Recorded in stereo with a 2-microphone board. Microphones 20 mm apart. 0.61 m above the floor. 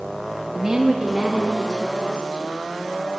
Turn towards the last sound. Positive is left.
turn(degrees=-35)  # may be behind; listen again after turning